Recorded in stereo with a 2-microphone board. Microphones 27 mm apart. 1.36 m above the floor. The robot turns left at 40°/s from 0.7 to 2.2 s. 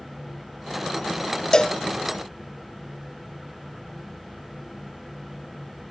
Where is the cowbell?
25° left (ahead or behind), 0.6 m.